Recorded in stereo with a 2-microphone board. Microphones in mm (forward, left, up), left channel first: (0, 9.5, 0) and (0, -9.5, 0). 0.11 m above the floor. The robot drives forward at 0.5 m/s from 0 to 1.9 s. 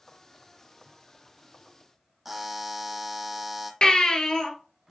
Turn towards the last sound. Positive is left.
turn(degrees=40)  # may be behind; listen again after turning